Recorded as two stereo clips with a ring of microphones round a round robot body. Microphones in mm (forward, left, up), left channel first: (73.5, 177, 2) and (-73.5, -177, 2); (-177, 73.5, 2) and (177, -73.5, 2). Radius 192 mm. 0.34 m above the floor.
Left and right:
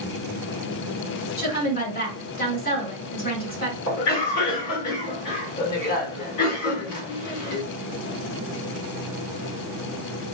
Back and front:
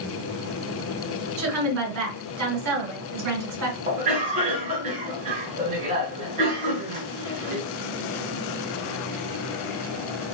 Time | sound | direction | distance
1.4 | a woman speaking | 5° left | 2 m
3.9 | a cough | 35° left | 1.8 m